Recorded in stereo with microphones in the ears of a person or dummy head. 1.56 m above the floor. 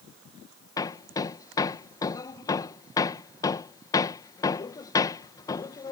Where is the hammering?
20° left (ahead or behind).